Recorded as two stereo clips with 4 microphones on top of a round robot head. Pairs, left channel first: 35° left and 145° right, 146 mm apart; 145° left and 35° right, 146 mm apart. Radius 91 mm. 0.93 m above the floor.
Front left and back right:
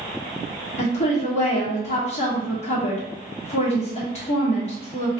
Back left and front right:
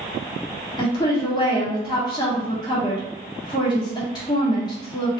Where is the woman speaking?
80° left, 1.6 m.